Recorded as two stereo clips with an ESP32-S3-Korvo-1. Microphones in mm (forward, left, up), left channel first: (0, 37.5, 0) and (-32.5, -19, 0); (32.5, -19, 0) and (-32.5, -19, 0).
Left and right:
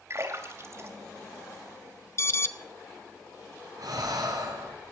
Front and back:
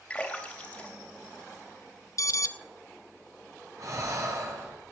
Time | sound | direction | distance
0.1 | a splash | 75° right | 2.5 m
2.2 | an alarm | 20° left | 0.6 m
3.8 | breathing | 140° right | 5.5 m